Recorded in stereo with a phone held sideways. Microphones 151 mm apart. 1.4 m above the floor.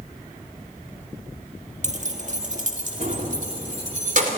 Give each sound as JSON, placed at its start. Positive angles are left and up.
{"t": 1.8, "sound": "keys jangling", "side_deg": -50, "distance_m": 1.5}